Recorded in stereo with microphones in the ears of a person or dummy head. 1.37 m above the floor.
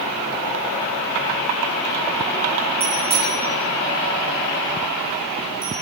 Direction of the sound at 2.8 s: 20° right (ahead or behind).